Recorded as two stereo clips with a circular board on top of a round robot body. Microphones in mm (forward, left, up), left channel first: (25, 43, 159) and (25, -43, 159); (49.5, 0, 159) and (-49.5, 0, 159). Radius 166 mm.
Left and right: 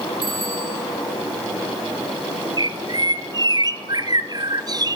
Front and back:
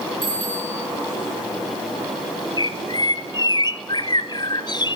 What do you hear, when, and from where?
0.2 s a bicycle bell: 125° right, 8.5 m
2.6 s a bird: 50° right, 1.3 m